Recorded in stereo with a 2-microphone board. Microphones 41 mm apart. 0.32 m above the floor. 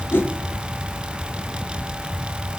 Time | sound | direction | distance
0.1 | a whoosh | 70° left (ahead or behind) | 3 m